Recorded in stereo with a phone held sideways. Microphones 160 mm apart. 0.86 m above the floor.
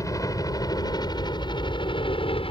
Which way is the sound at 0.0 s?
20° left (ahead or behind).